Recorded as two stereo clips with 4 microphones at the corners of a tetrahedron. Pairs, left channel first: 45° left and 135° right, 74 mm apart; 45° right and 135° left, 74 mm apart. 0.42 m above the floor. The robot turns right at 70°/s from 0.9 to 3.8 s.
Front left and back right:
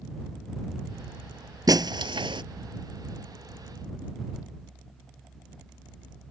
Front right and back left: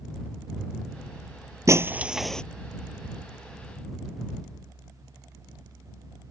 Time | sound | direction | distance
1.7 | breaking glass | 175° right | ?